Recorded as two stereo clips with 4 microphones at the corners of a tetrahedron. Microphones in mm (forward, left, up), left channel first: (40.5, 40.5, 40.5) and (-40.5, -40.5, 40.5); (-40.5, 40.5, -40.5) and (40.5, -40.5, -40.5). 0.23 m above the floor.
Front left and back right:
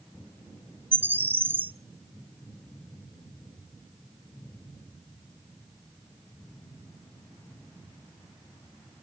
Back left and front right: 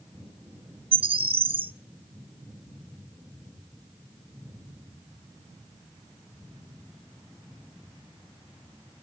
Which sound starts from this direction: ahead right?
A bird, at 0.9 s.